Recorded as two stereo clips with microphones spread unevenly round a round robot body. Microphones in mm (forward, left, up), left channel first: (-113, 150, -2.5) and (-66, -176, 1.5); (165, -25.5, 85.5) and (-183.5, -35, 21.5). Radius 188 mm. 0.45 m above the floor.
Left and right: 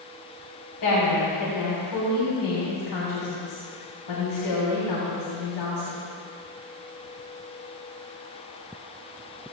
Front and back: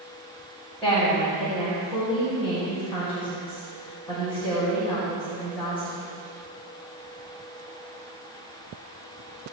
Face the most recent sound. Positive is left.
turn(degrees=95)